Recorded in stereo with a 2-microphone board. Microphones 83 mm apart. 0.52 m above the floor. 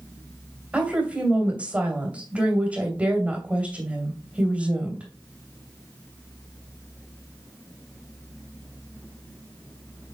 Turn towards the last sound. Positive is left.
turn(degrees=-20)  # may be behind; listen again after turning